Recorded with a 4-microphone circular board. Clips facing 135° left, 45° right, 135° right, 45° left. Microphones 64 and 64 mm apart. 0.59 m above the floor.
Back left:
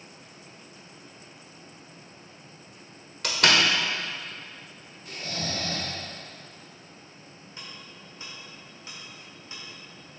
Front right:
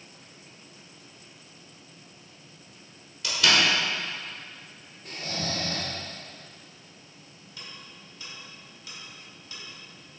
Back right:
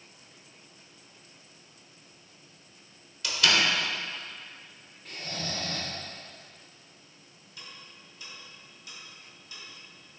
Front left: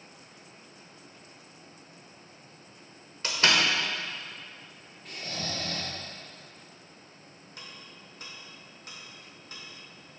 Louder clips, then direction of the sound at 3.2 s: Back left 1 dB, front left 1 dB; 100° left.